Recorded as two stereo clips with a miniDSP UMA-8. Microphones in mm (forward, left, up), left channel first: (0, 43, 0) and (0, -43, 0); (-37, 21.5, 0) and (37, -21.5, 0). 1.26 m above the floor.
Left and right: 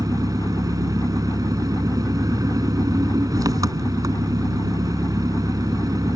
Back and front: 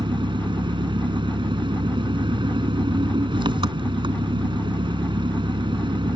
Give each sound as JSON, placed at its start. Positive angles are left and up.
{"t": 0.0, "sound": "an engine running", "azimuth_deg": -45}